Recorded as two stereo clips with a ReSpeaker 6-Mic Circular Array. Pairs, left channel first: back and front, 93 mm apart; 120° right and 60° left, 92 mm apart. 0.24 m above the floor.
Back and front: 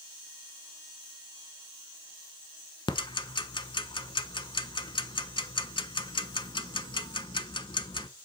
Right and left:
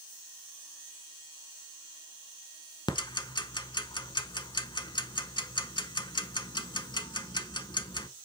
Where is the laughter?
I don't hear laughter.